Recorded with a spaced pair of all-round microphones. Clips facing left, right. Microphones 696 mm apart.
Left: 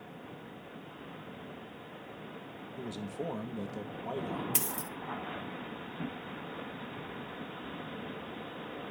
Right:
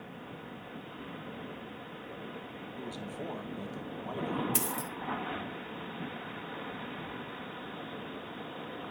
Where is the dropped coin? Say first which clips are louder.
Right 3 dB; 20° left (ahead or behind), 1.1 m.